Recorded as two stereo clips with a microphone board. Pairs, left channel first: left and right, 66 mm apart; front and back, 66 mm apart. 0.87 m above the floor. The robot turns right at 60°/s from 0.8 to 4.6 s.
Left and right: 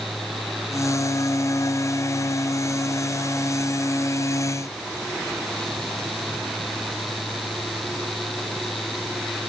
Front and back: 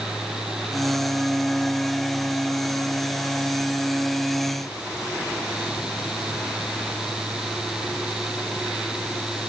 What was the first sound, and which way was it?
Only background noise.